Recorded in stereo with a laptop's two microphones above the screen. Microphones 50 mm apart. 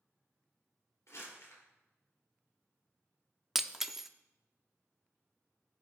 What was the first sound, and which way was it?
Crumpling, 80° left.